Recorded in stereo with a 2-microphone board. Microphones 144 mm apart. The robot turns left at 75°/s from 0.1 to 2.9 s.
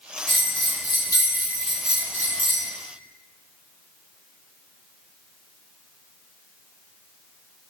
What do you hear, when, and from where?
0.3 s a bell: 110° left, 1.1 m; by 2.7 s 70° right, 1.1 m